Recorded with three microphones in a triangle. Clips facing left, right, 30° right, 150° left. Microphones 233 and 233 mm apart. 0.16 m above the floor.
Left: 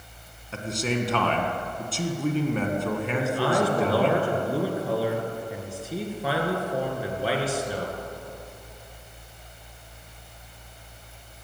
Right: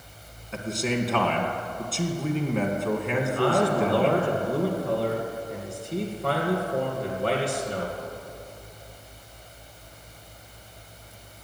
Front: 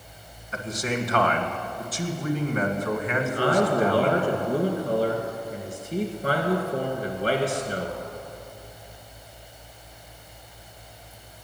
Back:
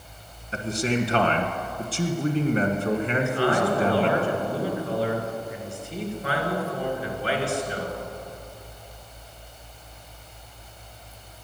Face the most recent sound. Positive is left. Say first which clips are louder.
# right 1 dB, front 3 dB
turn(degrees=5)